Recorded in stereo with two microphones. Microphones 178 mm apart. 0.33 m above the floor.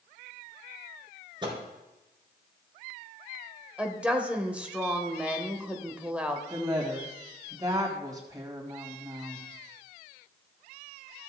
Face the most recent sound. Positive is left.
turn(degrees=-20)  # may be behind; listen again after turning